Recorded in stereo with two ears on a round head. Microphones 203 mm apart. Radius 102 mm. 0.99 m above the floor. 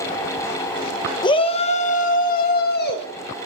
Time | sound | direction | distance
1.2 | a shout | 20° left (ahead or behind) | 1.0 m